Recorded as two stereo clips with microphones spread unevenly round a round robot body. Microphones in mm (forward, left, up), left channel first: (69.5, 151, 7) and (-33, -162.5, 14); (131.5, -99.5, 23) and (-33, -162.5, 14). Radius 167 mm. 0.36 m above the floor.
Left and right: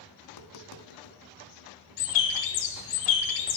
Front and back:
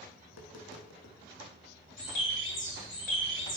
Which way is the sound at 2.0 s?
70° left.